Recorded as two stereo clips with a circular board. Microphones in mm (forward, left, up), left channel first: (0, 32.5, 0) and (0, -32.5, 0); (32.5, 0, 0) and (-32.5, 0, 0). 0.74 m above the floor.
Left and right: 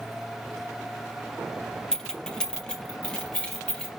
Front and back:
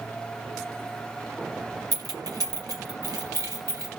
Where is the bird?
No bird in this recording.